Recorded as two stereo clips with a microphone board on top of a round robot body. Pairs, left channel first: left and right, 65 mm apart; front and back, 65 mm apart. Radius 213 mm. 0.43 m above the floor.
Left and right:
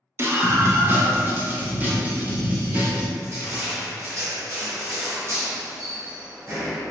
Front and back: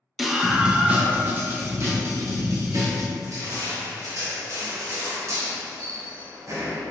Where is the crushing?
135° right, 1.5 m.